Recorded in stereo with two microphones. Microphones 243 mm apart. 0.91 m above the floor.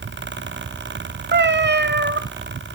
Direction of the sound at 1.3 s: 45° right (ahead or behind).